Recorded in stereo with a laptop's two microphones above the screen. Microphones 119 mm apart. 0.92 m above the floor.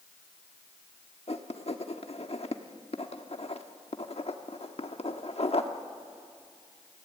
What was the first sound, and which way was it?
Writing, 55° left (ahead or behind).